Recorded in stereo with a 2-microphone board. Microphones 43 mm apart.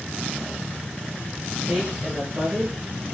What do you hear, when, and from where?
1.7 s a woman speaking: 25° right (ahead or behind), 6 m; by 2.8 s 35° right (ahead or behind), 7 m